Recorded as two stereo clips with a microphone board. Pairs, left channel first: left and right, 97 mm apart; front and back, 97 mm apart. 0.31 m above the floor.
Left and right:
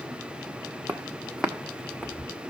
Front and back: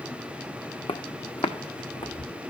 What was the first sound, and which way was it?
Footsteps, 15° right.